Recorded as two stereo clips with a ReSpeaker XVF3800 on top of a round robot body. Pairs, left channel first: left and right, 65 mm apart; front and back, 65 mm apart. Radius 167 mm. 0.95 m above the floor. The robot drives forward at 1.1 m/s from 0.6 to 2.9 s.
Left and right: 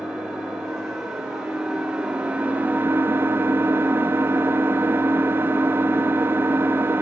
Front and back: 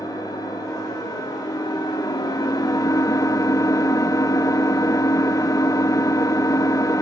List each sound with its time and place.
0.0 s an engine running: 10° right, 3.5 m; by 7.0 s 30° right, 0.9 m